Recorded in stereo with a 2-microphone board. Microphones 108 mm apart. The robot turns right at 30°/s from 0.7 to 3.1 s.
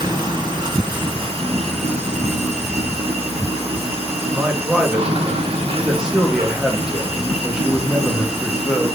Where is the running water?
135° right, 3 m; by 9.0 s 60° right, 3 m.